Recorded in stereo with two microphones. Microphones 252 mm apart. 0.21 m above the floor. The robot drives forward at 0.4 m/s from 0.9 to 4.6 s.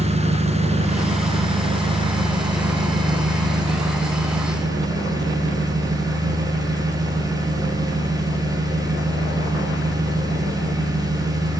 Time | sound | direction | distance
0.0 | an engine running | 25° right (ahead or behind) | 1.7 m